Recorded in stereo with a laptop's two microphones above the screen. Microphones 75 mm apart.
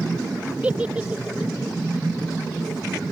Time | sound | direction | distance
0.6 | a giggle | 15° right (ahead or behind) | ?